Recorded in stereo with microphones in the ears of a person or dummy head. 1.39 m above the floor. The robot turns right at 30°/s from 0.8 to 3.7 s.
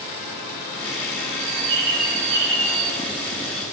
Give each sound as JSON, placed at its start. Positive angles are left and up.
{"t": 1.4, "sound": "a bird", "azimuth_deg": -75, "distance_m": 1.7}